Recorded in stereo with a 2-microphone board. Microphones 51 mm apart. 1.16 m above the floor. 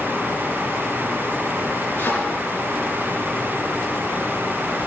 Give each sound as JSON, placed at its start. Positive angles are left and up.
{"t": 2.0, "sound": "a thud", "side_deg": 60, "distance_m": 6.0}